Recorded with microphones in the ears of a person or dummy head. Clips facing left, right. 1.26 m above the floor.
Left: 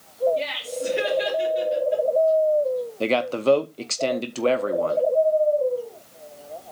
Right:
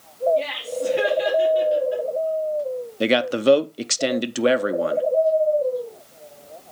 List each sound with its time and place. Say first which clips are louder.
0.4 s laughter: right 3 dB; 10° left (ahead or behind), 3 m; by 2.0 s 10° right (ahead or behind), 3.5 m
3.0 s a man speaking: right 4 dB; 15° right (ahead or behind), 0.5 m